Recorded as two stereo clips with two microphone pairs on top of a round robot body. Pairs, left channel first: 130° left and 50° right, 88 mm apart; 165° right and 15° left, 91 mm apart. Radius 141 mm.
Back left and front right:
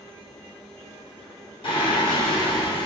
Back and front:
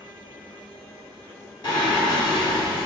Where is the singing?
160° left, 1.4 m.